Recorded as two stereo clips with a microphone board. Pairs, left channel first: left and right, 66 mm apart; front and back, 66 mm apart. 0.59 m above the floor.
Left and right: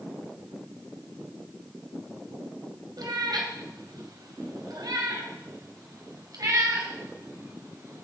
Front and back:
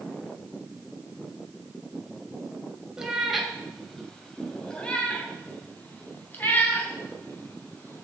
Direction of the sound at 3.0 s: 100° right.